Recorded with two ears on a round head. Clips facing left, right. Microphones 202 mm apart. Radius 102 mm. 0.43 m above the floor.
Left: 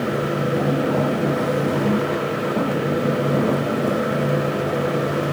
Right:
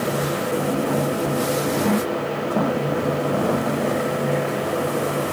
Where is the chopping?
No chopping in this recording.